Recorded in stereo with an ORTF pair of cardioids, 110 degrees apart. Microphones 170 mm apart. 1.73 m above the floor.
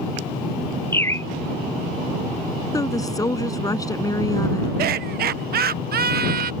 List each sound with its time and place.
0.9 s a bird: 15° left
2.7 s a woman speaking: 20° left
4.8 s laughter: 65° right